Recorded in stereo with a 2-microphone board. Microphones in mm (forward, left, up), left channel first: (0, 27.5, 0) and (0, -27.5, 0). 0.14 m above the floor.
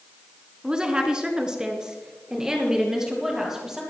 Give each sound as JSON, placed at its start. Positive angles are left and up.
{"t": 0.6, "sound": "a woman speaking", "side_deg": -15, "distance_m": 1.5}